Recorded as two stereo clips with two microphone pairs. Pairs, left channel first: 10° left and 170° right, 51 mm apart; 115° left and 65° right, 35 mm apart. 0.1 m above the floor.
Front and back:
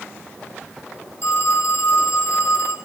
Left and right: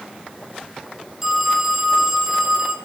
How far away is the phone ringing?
About 1.9 m.